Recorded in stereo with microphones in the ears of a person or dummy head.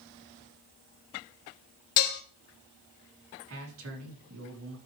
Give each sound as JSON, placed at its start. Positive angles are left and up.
{"t": 2.0, "sound": "dishes clattering", "side_deg": 55, "distance_m": 1.2}
{"t": 3.5, "sound": "a man speaking", "side_deg": -80, "distance_m": 4.5}